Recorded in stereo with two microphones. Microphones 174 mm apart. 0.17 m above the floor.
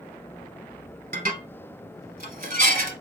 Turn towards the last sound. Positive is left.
turn(degrees=-55)  # may be behind; listen again after turning